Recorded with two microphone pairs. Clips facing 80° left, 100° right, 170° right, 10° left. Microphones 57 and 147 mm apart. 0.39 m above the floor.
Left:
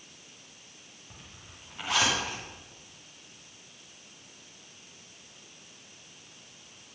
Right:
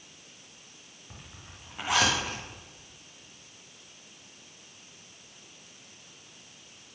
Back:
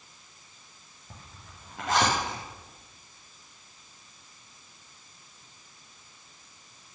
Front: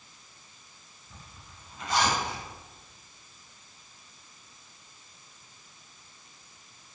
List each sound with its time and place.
1.1 s a zipper: 175° right, 8 m